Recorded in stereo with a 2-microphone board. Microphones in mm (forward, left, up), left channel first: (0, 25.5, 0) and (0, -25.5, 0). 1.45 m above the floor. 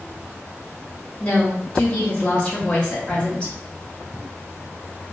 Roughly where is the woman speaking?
Left.